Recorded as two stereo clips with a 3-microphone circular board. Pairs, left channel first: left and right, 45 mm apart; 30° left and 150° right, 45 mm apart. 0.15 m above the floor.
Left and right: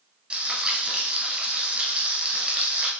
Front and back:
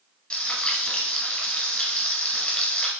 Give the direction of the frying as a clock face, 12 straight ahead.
1 o'clock.